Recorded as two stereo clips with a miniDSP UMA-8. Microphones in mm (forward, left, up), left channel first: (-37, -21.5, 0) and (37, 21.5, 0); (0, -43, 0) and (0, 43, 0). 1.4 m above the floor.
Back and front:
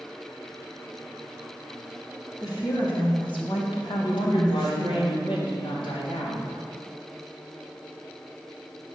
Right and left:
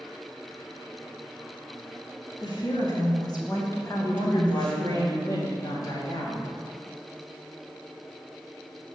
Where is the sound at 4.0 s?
135° right, 3.5 m.